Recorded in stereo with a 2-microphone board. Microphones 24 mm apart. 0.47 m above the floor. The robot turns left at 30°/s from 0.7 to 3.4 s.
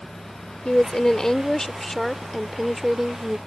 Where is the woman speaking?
55° left; by 3.4 s 30° right.